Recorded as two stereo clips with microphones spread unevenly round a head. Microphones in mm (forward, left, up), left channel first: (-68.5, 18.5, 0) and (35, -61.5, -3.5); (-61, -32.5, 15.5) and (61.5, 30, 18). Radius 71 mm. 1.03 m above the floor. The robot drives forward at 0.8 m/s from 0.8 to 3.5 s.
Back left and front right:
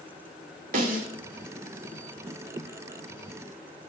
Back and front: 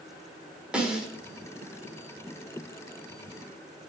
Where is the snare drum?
55° right, 2 m; by 1.1 s 60° right, 2.0 m.